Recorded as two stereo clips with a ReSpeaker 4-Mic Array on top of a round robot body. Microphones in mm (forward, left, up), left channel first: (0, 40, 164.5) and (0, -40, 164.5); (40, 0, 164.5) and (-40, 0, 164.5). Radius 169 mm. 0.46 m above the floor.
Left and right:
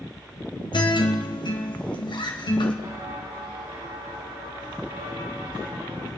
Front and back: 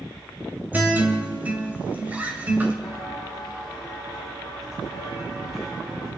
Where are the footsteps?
90° right, 8 m; by 6.1 s 95° right, 11.5 m.